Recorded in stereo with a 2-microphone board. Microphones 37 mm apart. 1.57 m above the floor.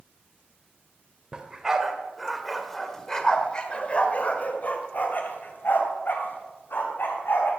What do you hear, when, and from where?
1.3 s a dog barking: 20° right (ahead or behind), 2 m; by 7.5 s 70° left (ahead or behind), 4 m